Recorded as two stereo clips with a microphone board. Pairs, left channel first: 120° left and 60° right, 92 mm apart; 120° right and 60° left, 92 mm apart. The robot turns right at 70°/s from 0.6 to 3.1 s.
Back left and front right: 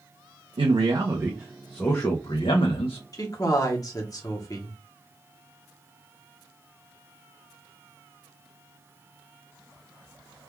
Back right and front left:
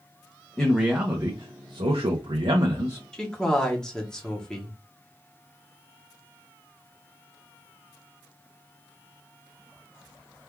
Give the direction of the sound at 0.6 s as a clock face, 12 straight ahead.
1 o'clock.